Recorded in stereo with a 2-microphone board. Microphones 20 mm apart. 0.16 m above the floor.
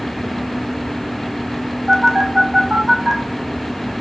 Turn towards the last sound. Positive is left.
turn(degrees=0)  # may be behind; listen again after turning